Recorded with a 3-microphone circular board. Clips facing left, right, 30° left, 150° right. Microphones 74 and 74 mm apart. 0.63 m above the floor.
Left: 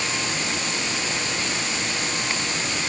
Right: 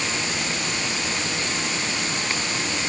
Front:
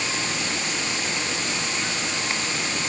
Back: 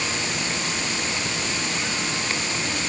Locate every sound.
Only background noise.